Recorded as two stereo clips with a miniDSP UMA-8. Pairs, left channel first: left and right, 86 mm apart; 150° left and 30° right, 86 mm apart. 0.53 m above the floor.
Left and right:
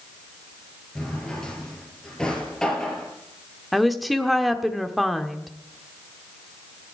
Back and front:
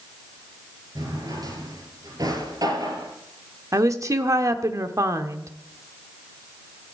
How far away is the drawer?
About 3.5 m.